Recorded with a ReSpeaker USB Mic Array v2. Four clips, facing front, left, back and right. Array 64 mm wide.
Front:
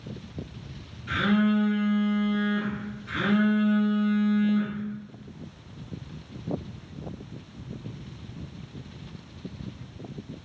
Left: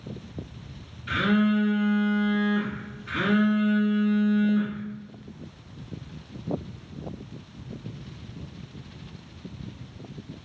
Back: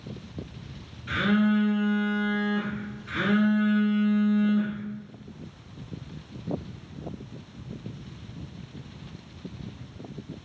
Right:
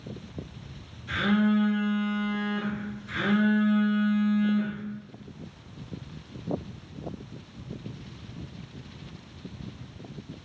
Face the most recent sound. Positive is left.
turn(degrees=95)